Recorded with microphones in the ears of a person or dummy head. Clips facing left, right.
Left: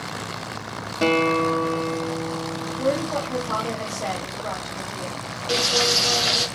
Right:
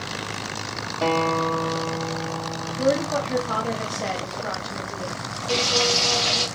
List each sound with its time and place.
1.0 s a guitar: 30° left (ahead or behind), 0.7 m
2.8 s a woman speaking: 5° right (ahead or behind), 1.0 m
5.5 s frying: 20° left (ahead or behind), 0.7 m